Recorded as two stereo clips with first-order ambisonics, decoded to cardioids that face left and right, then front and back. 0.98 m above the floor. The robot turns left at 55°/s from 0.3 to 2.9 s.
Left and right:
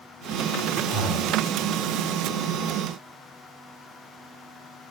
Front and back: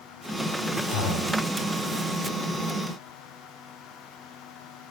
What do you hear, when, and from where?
0.9 s breathing: 20° left, 5.5 m; by 1.4 s 10° right, 5.5 m